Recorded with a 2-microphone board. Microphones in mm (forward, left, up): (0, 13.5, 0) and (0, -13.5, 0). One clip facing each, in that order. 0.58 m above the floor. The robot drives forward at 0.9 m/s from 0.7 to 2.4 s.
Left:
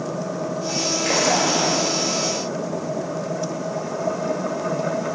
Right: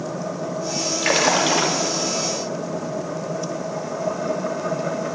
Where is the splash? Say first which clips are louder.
Right 2 dB; 40° right (ahead or behind), 1.0 m; by 1.8 s 80° right, 0.7 m.